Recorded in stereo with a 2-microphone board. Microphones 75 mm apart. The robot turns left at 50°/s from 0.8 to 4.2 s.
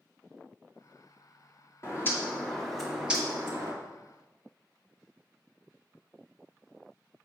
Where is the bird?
45° left, 1.4 m; by 3.7 s 50° right, 1.4 m.